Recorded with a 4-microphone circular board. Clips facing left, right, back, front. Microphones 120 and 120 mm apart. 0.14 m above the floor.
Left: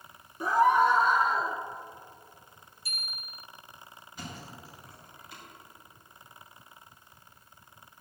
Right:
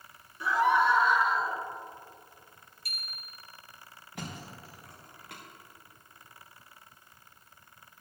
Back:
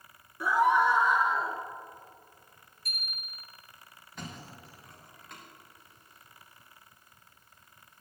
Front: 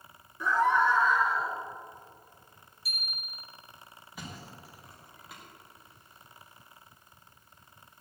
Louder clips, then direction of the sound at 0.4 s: Left 3 dB, back 1 dB; 105° left.